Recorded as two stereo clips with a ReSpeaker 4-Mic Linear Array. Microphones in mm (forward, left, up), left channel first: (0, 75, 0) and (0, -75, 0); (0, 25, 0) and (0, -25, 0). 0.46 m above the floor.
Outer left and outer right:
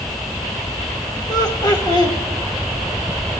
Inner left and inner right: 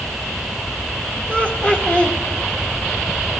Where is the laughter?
25° left (ahead or behind), 1.2 m.